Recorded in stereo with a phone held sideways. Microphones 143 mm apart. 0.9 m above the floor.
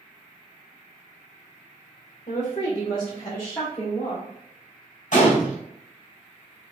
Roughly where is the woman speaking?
Left.